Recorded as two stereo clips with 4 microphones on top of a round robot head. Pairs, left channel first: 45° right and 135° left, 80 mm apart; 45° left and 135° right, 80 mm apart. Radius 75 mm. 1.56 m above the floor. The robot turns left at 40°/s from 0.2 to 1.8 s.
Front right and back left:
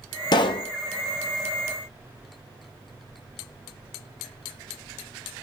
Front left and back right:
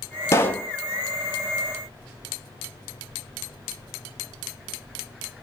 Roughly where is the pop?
Ahead.